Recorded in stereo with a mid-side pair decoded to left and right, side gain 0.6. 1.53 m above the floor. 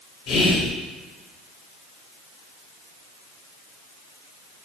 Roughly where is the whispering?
Ahead left.